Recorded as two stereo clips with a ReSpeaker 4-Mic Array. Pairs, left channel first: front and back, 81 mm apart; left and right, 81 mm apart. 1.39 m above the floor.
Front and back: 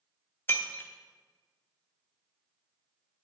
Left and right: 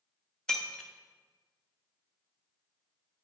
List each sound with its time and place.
0.5 s breaking glass: 20° left, 0.8 m